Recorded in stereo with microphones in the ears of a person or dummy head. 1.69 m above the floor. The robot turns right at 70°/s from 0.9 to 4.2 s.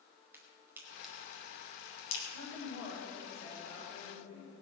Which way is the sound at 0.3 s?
5° right (ahead or behind).